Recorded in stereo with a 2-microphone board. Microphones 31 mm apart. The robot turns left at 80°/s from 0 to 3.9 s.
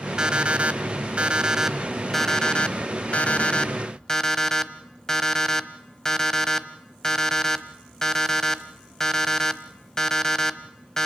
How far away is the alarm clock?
About 1.0 m.